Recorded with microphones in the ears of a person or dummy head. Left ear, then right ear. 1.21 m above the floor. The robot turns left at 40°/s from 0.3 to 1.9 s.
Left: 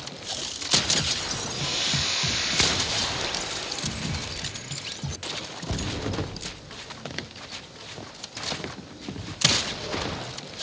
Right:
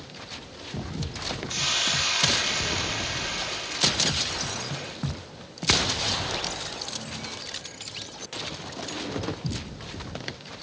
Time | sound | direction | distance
1.5 | a hiss | 55° right (ahead or behind) | 2.5 m